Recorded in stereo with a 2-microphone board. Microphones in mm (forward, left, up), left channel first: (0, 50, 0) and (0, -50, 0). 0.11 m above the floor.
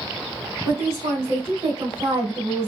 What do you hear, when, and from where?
0.7 s a woman speaking: 70° right (ahead or behind), 3 m